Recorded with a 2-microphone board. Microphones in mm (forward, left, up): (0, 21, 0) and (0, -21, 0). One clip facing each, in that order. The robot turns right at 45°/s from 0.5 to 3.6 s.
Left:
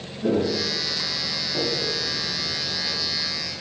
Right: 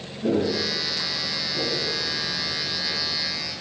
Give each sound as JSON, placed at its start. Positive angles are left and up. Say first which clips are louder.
{"t": 0.2, "sound": "footsteps", "louder": "even", "side_deg": 15, "distance_m": 4.0}